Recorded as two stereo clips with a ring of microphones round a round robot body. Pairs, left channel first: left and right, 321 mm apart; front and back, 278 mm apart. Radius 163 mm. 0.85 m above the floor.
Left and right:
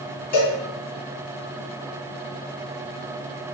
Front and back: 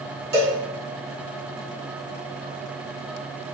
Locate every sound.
0.3 s a cowbell: 155° left, 2.5 m